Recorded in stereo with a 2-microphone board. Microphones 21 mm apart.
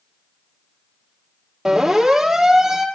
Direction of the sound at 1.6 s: 20° right (ahead or behind).